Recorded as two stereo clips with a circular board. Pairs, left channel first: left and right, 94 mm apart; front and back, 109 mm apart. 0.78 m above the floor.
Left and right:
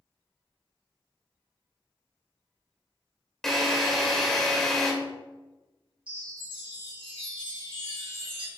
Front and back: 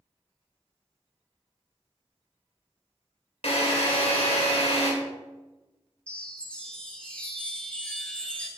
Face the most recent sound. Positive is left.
turn(degrees=-80)